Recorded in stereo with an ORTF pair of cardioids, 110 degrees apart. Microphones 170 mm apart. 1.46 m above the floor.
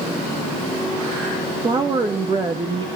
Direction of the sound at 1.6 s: 25° right.